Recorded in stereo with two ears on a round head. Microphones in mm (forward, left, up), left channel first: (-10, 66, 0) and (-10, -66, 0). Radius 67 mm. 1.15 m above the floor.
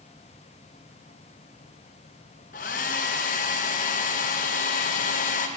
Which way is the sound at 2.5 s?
55° left (ahead or behind).